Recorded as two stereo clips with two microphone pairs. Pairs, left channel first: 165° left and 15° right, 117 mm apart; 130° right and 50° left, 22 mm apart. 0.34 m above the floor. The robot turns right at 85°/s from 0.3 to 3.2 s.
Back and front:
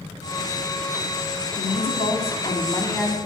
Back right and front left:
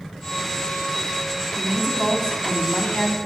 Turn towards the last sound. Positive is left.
turn(degrees=-100)